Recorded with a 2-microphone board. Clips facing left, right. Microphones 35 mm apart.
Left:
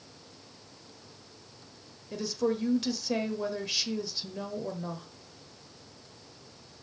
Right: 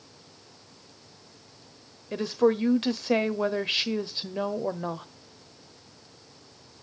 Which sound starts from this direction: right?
A woman speaking, at 2.1 s.